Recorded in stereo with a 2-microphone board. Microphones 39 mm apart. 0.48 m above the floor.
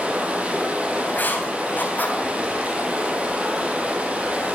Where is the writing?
55° left (ahead or behind), 3 m.